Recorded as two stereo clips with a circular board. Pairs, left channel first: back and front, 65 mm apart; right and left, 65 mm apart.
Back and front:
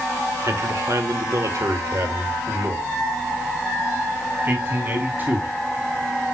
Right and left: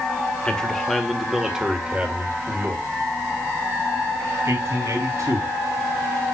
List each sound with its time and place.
0.5 s a man speaking: 15° right, 1.5 m; by 5.5 s 60° left, 3 m